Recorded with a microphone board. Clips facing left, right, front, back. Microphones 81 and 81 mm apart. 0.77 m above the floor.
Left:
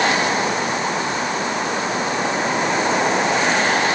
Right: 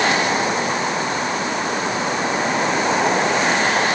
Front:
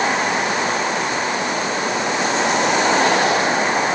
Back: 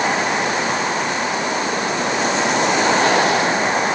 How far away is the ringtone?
I don't hear a ringtone.